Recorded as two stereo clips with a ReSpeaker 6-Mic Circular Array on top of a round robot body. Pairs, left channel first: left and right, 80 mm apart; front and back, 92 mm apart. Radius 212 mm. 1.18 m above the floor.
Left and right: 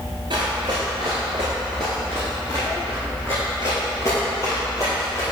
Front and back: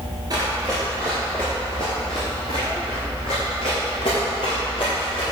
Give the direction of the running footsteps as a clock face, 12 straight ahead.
4 o'clock.